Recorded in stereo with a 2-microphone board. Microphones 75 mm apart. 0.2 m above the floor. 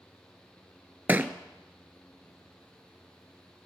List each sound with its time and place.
1.1 s a thud: 25° right (ahead or behind), 0.6 m